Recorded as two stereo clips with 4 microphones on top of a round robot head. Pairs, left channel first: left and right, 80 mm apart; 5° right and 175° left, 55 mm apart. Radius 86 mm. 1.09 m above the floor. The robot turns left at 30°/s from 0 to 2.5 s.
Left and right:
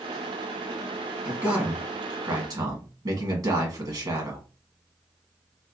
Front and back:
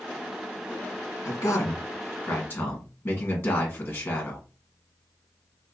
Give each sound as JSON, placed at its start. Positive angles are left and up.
{"t": 1.2, "sound": "a man speaking", "azimuth_deg": -20, "distance_m": 1.6}